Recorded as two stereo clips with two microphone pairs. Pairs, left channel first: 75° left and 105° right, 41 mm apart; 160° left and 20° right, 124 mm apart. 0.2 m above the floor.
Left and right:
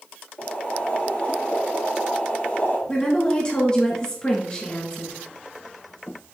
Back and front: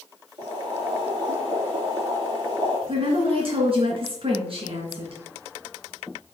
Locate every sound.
0.4 s boiling: 30° left, 3 m
2.9 s a woman speaking: 10° left, 2.5 m